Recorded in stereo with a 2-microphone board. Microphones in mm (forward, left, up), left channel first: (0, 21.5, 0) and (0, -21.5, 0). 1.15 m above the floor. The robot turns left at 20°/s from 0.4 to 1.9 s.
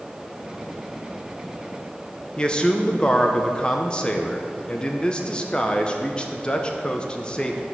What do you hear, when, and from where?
2.4 s a man speaking: 25° left (ahead or behind), 0.7 m